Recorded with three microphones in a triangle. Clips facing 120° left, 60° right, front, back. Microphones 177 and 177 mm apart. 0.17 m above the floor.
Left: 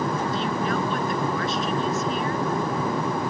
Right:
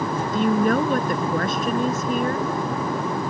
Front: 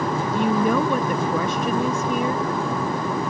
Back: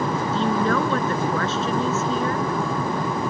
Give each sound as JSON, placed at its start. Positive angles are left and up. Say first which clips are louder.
{"t": 0.3, "sound": "a woman speaking", "louder": "right 6 dB, front 2 dB", "azimuth_deg": -75}